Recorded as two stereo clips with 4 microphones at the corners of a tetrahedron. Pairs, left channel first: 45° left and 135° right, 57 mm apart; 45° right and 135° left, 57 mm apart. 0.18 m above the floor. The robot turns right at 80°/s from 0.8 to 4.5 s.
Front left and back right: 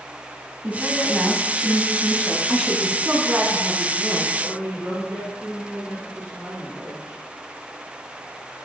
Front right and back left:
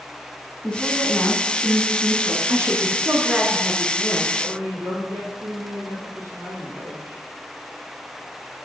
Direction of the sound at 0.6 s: 110° right.